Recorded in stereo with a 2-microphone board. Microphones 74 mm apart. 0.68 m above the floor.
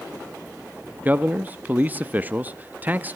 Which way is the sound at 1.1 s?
20° right (ahead or behind).